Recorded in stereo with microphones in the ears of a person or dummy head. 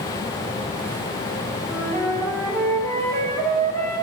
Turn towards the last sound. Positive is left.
turn(degrees=5)  # may be behind; listen again after turning